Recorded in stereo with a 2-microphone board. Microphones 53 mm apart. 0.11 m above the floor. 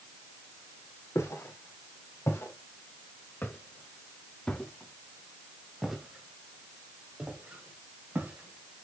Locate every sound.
1.1 s footsteps: 60° left (ahead or behind), 5 m; by 8.8 s 40° right (ahead or behind), 5 m